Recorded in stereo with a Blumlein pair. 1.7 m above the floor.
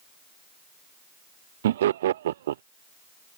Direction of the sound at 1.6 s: 60° right.